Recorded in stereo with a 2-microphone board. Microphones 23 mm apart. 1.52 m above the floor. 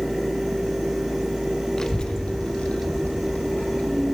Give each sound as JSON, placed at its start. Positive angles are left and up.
{"t": 1.8, "sound": "a child speaking", "side_deg": 25, "distance_m": 0.5}